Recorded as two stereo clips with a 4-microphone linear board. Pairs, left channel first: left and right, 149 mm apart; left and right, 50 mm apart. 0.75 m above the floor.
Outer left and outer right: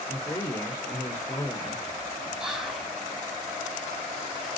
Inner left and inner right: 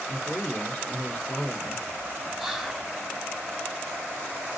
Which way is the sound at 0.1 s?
15° left (ahead or behind).